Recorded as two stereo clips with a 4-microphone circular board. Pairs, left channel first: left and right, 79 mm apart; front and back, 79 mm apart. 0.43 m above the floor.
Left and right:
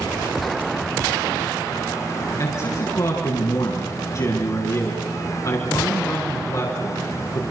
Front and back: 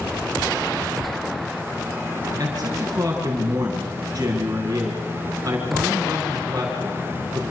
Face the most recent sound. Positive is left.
turn(degrees=125)